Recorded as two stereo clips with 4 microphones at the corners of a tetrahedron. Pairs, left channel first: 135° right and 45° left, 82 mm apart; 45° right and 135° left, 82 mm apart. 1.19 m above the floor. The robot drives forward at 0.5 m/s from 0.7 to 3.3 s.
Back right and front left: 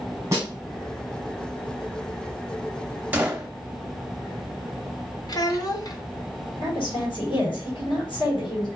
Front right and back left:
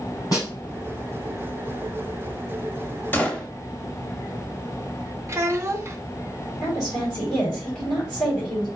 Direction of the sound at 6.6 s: 135° right.